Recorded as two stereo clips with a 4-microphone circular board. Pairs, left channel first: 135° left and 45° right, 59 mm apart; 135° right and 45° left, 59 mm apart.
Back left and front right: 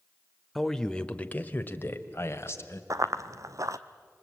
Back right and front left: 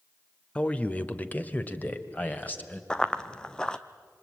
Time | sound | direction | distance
0.6 | a man speaking | 145° right | 0.9 m
2.9 | running footsteps | 60° right | 0.8 m